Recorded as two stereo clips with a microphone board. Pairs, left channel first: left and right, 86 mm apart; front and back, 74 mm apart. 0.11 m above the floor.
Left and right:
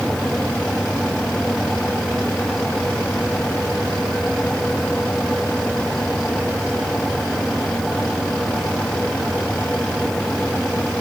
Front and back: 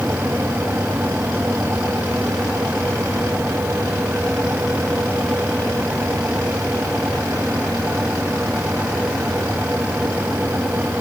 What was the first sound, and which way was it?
Only background noise.